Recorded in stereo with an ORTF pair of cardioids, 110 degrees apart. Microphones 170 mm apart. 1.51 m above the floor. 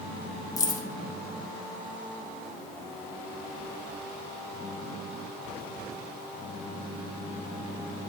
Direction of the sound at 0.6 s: 20° left.